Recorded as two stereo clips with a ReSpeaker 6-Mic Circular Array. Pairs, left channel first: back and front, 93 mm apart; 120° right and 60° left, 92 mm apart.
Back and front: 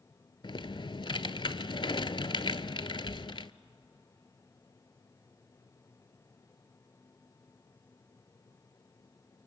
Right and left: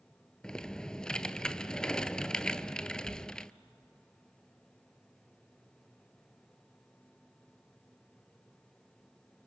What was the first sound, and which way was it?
Typing on a keyboard, 160° left.